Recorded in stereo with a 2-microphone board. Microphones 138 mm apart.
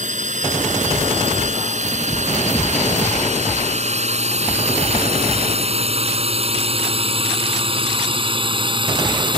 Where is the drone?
60° right (ahead or behind); by 9.4 s 35° right (ahead or behind).